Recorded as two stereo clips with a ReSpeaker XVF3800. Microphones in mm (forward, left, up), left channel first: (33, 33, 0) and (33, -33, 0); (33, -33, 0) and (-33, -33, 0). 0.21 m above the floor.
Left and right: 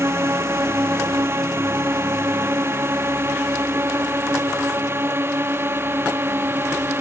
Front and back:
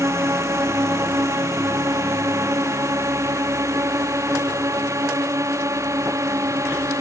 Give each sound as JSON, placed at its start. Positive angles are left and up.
{"t": 0.0, "sound": "a drone", "azimuth_deg": -135}